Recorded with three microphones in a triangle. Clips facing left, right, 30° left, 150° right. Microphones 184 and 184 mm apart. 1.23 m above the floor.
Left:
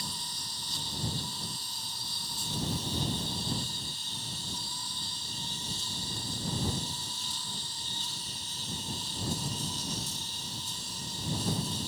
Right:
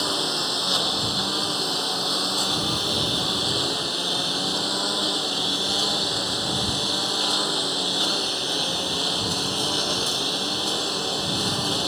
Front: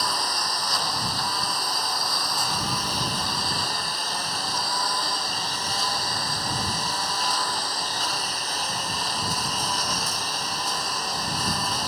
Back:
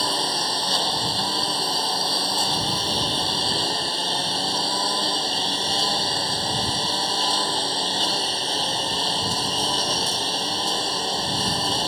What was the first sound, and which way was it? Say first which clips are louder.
A lawn mower: right 18 dB, back 4 dB; 90° right.